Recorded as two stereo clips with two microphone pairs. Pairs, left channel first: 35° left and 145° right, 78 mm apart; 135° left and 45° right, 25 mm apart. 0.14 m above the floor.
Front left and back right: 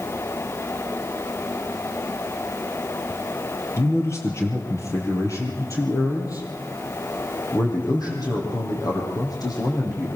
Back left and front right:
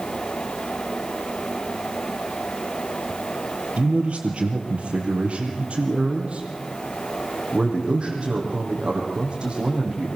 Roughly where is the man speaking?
Ahead.